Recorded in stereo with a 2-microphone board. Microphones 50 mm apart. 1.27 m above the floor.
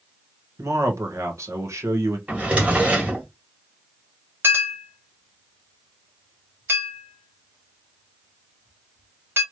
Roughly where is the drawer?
Right.